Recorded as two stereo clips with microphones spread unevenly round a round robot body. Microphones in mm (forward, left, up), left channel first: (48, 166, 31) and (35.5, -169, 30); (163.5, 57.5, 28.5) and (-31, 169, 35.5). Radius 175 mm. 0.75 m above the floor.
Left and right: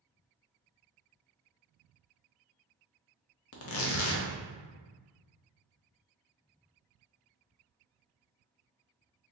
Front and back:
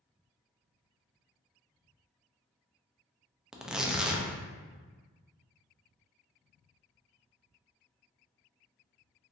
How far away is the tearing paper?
About 0.6 m.